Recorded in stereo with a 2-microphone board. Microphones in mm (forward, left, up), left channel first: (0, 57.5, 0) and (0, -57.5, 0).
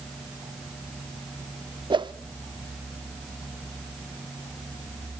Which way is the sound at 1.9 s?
40° right (ahead or behind).